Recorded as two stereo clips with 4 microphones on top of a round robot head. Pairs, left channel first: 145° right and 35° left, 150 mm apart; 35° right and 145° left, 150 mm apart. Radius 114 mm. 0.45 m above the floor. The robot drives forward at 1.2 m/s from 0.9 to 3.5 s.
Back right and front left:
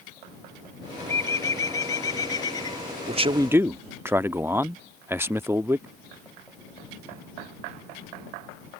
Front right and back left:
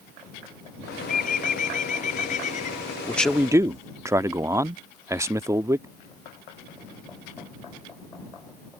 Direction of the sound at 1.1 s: 70° right.